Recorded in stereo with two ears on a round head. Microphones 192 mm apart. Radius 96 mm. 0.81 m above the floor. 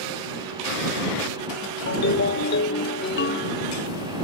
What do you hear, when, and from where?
1.9 s a ringtone: 50° left (ahead or behind)